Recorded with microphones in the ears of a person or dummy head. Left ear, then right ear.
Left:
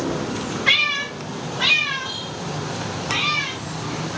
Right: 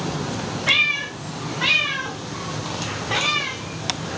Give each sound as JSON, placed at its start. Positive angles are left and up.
{"t": 0.7, "sound": "a cat meowing", "side_deg": 60, "distance_m": 2.5}